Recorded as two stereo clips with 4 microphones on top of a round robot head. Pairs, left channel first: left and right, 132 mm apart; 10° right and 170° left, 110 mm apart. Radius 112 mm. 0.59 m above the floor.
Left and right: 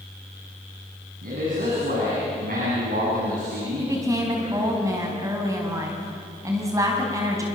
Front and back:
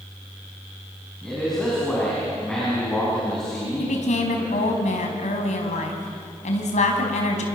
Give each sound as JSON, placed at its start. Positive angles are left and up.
{"t": 1.2, "sound": "a man speaking", "azimuth_deg": -95, "distance_m": 6.0}
{"t": 3.8, "sound": "a woman speaking", "azimuth_deg": -20, "distance_m": 4.5}